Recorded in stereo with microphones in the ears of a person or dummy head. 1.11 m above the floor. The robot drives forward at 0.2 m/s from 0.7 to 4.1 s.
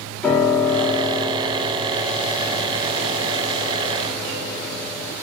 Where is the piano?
Centre (ahead or behind), 2 m.